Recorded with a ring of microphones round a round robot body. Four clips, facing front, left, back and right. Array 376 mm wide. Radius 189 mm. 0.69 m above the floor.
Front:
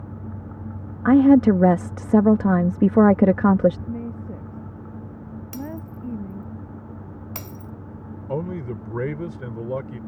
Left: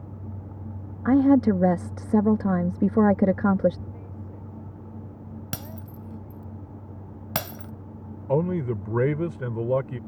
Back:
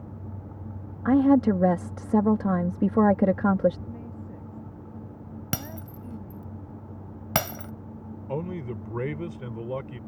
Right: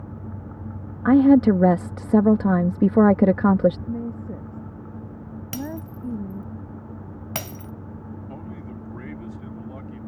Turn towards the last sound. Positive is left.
turn(degrees=75)